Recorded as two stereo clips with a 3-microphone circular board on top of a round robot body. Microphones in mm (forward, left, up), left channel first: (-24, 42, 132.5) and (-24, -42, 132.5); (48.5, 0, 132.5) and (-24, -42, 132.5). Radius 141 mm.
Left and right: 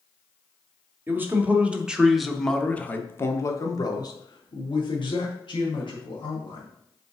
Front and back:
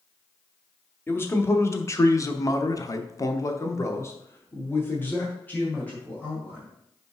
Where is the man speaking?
30° right, 1.3 m; by 6.7 s 105° left, 2 m.